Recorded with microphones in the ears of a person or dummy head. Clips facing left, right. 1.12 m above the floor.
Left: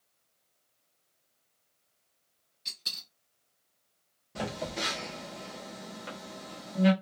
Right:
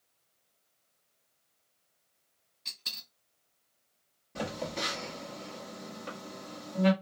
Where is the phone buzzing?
Centre (ahead or behind), 0.8 m.